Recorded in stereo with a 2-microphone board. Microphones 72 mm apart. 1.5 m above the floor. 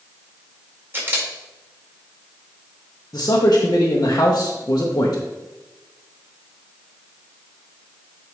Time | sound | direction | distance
0.9 | a camera shutter | 30° right (ahead or behind) | 2.5 m
3.1 | a man speaking | 60° left (ahead or behind) | 1.3 m